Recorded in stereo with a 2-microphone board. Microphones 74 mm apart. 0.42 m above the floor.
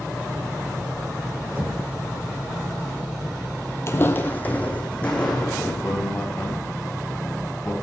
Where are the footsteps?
40° left (ahead or behind), 0.8 m; by 5.7 s 15° left (ahead or behind), 2.5 m.